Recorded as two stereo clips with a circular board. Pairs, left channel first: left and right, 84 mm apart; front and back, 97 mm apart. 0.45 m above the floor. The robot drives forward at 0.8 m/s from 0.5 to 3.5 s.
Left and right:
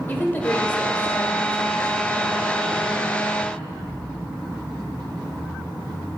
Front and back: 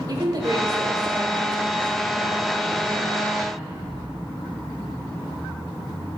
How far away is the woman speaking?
About 1.7 m.